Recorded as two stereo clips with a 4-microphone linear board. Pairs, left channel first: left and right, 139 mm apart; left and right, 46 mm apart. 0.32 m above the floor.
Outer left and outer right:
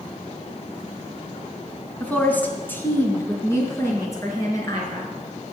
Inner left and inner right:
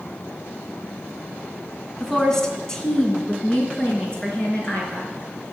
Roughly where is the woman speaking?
Centre.